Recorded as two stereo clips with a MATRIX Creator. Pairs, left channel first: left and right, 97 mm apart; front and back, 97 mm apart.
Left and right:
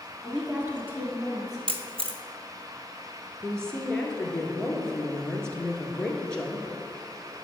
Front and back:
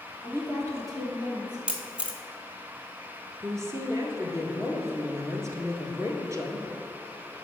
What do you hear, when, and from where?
0.2 s a woman speaking: 170° right, 1.4 m; by 1.6 s 140° right, 2.5 m
1.7 s a camera shutter: 105° right, 0.7 m
3.4 s a woman speaking: 165° left, 1.3 m